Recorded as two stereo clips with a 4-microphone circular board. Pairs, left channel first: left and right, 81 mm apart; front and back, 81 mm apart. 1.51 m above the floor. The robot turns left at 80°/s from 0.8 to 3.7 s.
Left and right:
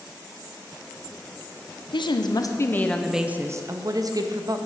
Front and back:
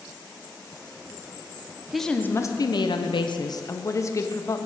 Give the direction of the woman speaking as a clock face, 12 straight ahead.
9 o'clock.